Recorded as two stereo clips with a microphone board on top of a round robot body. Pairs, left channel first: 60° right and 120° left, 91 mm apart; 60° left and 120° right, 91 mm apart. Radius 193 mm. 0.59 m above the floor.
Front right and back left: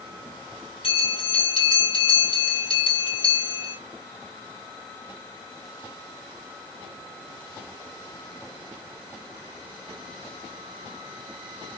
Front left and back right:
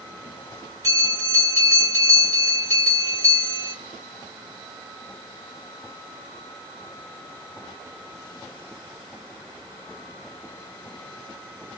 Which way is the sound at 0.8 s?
70° right.